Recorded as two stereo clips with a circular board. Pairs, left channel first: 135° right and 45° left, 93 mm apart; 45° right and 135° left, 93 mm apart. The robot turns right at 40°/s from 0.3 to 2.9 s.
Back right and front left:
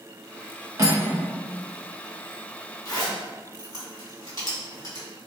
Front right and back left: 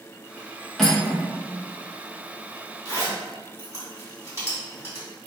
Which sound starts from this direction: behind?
A zipper, at 2.9 s.